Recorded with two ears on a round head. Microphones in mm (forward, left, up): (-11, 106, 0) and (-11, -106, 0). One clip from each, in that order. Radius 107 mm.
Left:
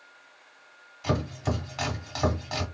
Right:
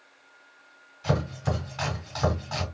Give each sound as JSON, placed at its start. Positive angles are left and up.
{"t": 1.0, "sound": "chopping", "side_deg": 25, "distance_m": 2.0}